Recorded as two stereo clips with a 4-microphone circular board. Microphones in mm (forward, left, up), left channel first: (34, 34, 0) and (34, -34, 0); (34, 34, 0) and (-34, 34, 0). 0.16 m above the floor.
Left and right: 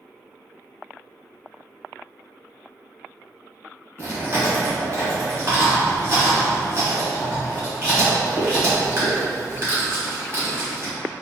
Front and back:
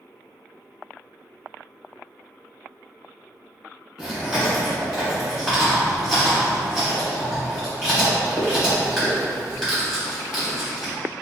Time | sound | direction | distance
4.0 | chewing | 105° right | 2.0 m